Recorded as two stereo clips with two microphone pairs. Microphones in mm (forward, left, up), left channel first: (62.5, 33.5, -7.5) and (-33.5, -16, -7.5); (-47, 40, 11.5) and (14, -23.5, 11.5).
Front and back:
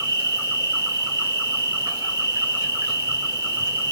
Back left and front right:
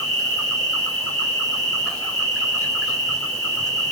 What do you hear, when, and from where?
0.0 s an insect: 165° right, 1.9 m